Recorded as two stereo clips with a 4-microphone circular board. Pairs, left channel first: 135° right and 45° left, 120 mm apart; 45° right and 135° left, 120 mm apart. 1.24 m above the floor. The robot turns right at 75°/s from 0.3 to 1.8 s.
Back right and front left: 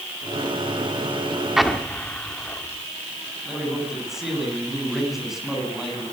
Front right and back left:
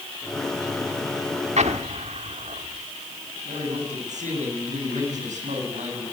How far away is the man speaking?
About 10 m.